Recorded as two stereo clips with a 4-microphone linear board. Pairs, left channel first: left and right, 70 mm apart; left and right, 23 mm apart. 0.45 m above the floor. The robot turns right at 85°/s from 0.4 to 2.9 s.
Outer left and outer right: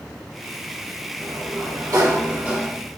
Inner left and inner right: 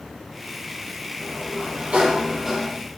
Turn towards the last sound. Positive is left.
turn(degrees=15)